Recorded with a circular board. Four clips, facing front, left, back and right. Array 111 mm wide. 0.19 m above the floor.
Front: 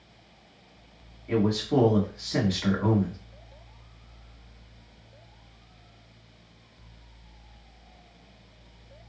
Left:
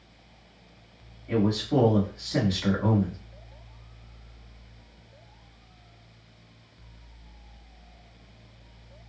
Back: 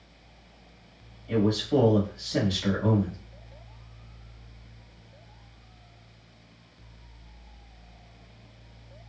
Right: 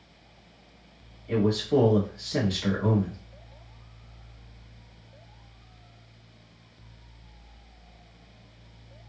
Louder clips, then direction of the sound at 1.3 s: Right 1 dB, even; 20° left.